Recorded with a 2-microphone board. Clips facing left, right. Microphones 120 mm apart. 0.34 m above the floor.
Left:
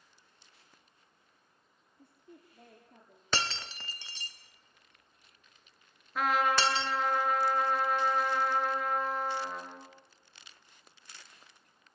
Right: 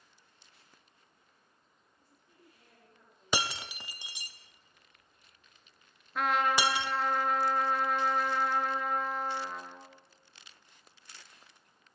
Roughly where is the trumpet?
Centre.